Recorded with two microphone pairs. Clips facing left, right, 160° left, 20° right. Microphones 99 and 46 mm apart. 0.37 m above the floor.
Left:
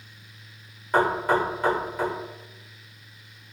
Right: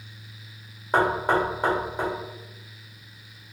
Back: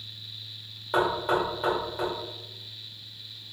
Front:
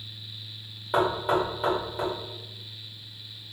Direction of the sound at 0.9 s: 100° right.